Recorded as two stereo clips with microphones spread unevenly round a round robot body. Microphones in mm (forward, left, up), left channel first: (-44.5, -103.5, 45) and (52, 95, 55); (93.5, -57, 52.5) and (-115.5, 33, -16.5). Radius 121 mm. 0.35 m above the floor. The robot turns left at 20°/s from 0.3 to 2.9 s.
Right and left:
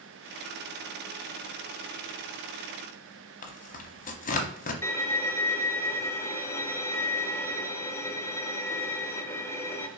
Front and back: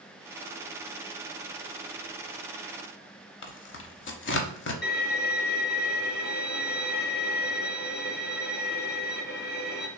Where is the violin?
55° right, 0.8 m.